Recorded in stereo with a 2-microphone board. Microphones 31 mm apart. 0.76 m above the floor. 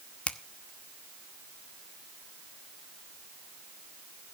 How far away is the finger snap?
About 1.0 m.